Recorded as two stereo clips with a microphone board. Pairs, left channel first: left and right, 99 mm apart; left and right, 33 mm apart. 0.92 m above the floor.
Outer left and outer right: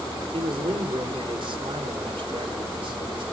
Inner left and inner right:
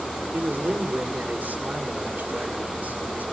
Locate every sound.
0.3 s a man speaking: 70° right (ahead or behind), 3 m